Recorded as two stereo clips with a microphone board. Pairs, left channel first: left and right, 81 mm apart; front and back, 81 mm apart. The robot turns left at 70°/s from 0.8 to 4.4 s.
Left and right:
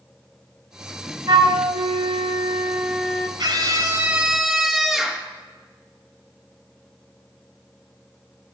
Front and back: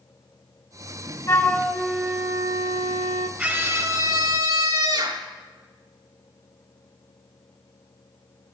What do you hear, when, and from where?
1.3 s a flute: 55° right, 0.8 m; by 3.3 s 165° left, 0.8 m
3.4 s a scream: 100° right, 3 m; by 5.2 s 175° right, 3 m